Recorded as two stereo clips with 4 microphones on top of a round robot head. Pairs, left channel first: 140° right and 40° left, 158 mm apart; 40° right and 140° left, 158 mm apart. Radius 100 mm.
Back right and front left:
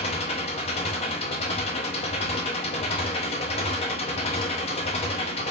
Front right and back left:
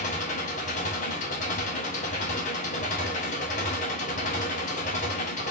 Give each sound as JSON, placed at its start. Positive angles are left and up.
{"t": 0.0, "sound": "an engine running", "azimuth_deg": -85, "distance_m": 0.9}